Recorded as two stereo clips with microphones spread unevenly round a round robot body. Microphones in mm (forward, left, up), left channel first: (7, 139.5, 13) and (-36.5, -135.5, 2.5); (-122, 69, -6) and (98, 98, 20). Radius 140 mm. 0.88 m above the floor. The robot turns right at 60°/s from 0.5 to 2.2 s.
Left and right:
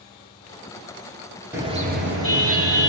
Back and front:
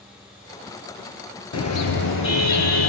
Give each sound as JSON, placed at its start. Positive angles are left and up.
{"t": 1.5, "sound": "a car horn", "azimuth_deg": 180, "distance_m": 9.5}